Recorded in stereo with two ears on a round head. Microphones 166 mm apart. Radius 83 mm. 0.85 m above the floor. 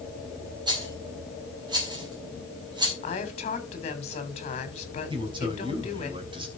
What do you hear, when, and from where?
0.7 s a rattle: 25° right (ahead or behind), 4.5 m
3.0 s a woman speaking: 35° left (ahead or behind), 3.5 m
5.1 s a man speaking: 25° right (ahead or behind), 4 m